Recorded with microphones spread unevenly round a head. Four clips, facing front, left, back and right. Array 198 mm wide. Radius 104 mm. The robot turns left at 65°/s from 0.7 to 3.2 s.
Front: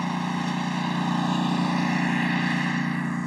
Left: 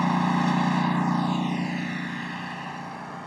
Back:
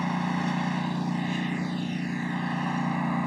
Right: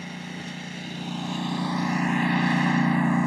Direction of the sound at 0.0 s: 70° left.